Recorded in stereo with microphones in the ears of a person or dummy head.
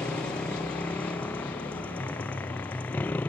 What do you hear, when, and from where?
0.0 s a motorcycle: 5° left (ahead or behind); by 3.3 s 10° left (ahead or behind)